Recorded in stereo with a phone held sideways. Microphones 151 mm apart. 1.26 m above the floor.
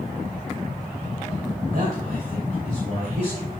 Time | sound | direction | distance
1.7 | a man speaking | 70° right (ahead or behind) | 3 m